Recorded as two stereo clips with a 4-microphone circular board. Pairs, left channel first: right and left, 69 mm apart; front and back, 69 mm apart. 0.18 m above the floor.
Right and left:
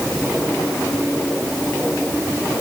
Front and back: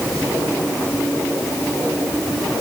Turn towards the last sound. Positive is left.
No sound to turn to.